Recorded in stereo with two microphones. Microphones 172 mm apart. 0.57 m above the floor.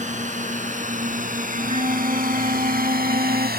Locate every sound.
0.0 s a drone: 45° right (ahead or behind); by 3.6 s 65° right (ahead or behind)
1.5 s a flute: 40° right (ahead or behind)